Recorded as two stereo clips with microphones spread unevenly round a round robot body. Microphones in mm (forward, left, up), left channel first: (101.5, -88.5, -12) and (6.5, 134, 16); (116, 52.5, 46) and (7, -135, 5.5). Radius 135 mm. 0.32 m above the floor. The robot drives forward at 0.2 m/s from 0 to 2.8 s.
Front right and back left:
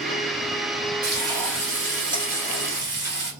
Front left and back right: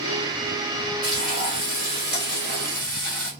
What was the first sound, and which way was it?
Frying, straight behind.